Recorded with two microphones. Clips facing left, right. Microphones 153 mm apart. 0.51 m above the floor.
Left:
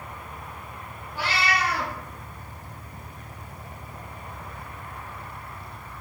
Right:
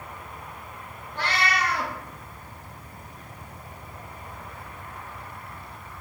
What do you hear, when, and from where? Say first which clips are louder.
1.1 s a cat meowing: even; 10° left (ahead or behind), 0.7 m